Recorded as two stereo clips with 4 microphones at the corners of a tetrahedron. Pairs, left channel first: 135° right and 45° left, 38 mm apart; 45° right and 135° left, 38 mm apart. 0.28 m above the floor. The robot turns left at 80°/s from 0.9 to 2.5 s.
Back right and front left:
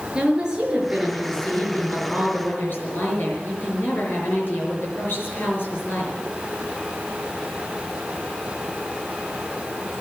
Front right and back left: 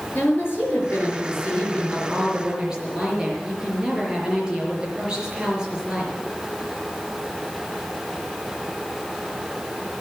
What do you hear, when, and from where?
0.1 s a woman speaking: 25° right, 5 m; by 6.1 s 155° right, 5 m